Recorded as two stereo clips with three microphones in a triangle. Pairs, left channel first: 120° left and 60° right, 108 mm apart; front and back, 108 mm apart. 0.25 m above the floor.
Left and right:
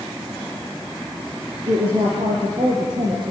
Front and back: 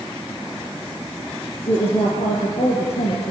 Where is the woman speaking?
25° right, 6.5 m; by 3.3 s 15° right, 6.5 m.